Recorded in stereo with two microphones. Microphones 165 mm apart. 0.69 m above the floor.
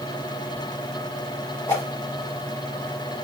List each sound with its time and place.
1.7 s a whoosh: 20° left (ahead or behind), 1.6 m